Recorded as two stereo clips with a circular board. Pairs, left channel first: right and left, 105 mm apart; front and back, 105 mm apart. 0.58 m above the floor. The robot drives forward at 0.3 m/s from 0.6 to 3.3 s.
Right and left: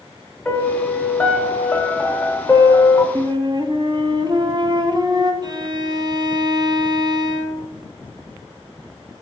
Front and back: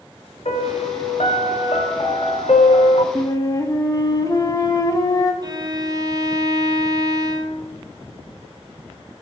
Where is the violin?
130° left, 0.7 m.